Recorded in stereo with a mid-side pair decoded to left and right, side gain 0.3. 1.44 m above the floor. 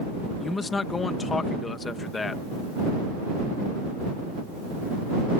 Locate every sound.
0.4 s a man speaking: 45° left